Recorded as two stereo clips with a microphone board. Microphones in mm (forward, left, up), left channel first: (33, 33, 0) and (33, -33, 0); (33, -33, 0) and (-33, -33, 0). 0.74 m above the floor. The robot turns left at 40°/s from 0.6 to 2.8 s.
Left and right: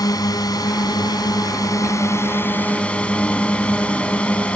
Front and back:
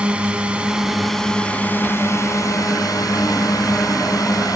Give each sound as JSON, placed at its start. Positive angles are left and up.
{"t": 0.0, "sound": "a drone", "azimuth_deg": 105}